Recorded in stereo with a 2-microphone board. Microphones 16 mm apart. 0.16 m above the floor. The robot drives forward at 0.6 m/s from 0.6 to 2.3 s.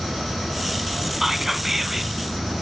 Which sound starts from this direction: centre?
Whispering, at 1.2 s.